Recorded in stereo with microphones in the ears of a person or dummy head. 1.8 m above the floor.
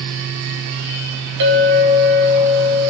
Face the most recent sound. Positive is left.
turn(degrees=-55)  # may be behind; listen again after turning